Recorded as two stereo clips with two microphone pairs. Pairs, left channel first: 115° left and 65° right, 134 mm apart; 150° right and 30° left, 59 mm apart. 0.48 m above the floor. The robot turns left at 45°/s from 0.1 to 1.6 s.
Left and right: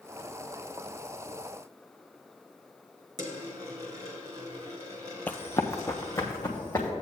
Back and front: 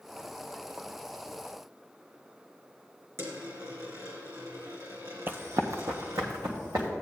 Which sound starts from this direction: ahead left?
Running footsteps, at 5.3 s.